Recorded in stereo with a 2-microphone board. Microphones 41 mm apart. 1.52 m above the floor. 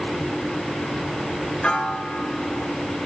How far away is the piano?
About 1.7 m.